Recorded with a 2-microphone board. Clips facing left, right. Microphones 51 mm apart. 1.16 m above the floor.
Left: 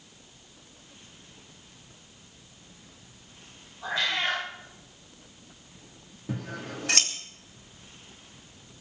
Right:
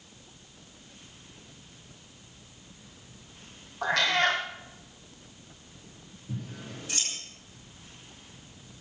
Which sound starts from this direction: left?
Scissors, at 6.3 s.